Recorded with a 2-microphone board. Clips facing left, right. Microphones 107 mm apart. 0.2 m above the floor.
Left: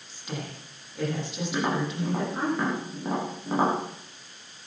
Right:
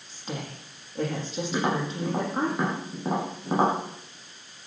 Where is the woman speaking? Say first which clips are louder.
Right 1 dB; 35° right (ahead or behind), 8 m.